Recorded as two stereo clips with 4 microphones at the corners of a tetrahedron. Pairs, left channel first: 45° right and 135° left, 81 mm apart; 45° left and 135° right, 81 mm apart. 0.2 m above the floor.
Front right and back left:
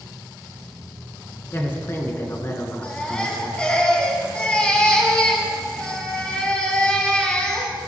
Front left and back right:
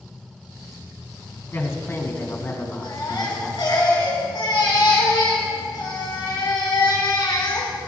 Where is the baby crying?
30° left, 3 m.